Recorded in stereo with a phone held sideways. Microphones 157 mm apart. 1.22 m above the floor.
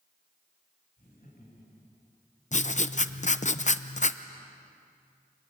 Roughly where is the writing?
Left.